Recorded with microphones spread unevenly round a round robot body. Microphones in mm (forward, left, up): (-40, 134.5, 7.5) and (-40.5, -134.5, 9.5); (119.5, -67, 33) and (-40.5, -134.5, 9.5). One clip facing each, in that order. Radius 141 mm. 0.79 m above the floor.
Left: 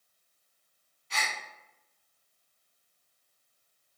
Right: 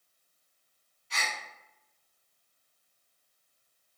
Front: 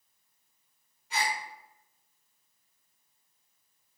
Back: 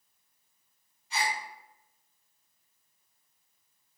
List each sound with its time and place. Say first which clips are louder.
1.1 s a gasp: left 1 dB, even; 80° left, 0.9 m